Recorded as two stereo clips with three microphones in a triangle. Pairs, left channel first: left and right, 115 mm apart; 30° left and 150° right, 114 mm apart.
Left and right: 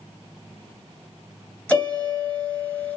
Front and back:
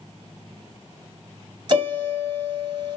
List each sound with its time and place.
1.7 s a piano: 165° left, 2 m